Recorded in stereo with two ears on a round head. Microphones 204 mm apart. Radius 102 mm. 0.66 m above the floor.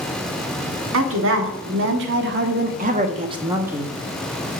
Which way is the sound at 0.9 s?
65° right (ahead or behind).